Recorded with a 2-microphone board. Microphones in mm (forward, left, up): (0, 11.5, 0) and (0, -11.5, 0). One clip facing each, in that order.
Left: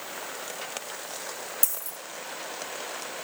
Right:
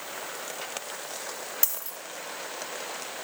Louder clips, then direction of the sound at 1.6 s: Even; 30° right (ahead or behind).